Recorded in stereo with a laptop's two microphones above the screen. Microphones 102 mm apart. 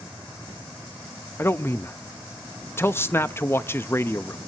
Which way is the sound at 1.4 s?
25° left (ahead or behind).